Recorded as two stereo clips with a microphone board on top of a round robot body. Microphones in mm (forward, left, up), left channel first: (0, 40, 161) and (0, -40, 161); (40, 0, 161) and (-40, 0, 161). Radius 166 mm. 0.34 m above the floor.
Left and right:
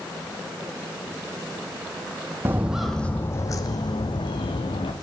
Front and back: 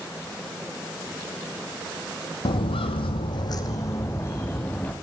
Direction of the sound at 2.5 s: 25° right.